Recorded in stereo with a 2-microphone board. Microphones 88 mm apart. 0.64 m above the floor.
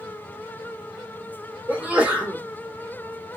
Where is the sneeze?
15° right (ahead or behind), 1.0 m.